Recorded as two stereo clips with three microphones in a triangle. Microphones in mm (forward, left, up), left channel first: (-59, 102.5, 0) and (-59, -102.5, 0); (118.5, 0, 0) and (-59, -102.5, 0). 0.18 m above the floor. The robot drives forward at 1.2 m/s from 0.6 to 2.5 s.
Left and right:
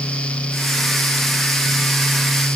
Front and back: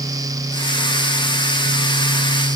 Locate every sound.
Only background noise.